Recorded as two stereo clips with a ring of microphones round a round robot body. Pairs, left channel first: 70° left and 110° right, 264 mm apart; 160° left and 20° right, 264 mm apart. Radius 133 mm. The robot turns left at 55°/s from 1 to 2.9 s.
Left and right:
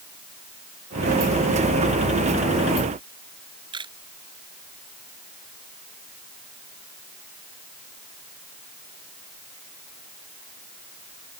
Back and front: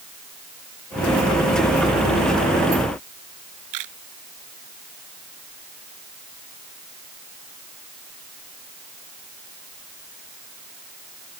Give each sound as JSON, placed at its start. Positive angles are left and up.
{"t": 3.7, "sound": "a camera shutter", "azimuth_deg": -40}